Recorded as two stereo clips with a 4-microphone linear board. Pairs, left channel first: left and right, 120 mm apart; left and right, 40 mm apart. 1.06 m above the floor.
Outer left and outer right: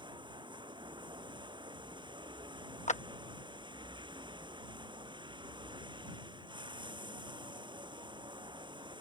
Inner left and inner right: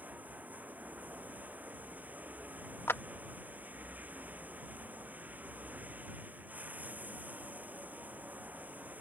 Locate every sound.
0.0 s running water: 40° right (ahead or behind)
2.9 s a clap: 90° left